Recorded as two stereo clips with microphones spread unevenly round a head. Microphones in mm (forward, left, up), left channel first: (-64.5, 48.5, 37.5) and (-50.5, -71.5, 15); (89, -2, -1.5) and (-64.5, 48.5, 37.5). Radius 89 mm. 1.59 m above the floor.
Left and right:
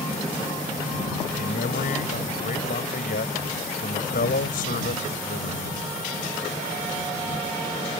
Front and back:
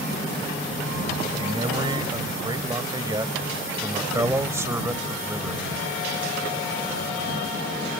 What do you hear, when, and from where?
1.4 s a man speaking: 105° left; by 5.8 s 85° left